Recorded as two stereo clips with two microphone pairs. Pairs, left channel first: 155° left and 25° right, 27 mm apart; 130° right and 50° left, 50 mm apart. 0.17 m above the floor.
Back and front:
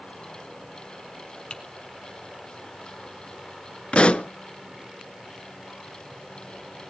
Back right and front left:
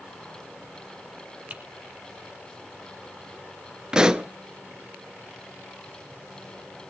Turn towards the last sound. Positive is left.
turn(degrees=120)